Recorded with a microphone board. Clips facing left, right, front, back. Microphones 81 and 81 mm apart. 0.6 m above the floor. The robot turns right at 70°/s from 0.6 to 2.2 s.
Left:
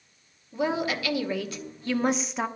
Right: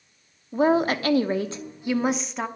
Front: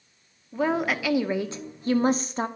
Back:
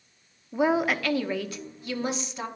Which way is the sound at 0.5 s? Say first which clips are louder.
Right 7 dB, back 1 dB; 110° right.